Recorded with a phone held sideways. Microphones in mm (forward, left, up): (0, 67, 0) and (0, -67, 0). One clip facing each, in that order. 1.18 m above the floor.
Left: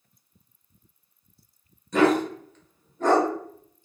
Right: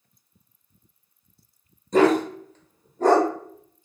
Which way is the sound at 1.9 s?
35° right (ahead or behind).